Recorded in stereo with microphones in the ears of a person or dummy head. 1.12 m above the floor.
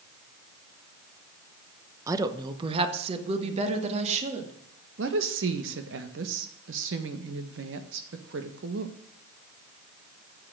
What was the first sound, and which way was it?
A woman speaking, 15° right (ahead or behind).